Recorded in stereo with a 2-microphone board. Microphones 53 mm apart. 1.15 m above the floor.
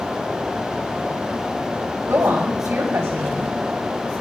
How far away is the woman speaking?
About 5.5 m.